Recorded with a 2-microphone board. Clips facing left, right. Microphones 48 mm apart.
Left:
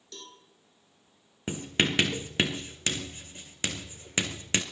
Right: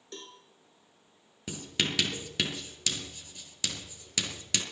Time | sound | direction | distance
0.1 | a cowbell | 30° right (ahead or behind) | 2 m
1.5 | writing | 35° left (ahead or behind) | 1.9 m